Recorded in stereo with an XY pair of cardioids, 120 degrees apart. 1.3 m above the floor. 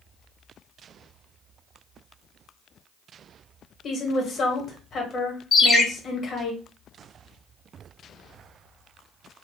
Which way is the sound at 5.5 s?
35° left.